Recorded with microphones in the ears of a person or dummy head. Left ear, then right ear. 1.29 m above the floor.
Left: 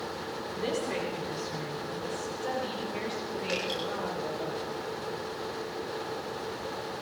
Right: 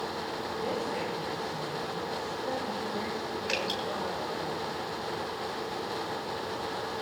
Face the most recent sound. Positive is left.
turn(degrees=-25)  # may be behind; listen again after turning